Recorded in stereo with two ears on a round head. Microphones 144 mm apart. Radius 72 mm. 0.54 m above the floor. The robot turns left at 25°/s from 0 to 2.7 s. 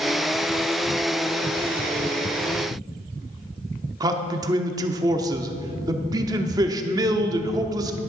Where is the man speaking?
25° right (ahead or behind), 0.8 m.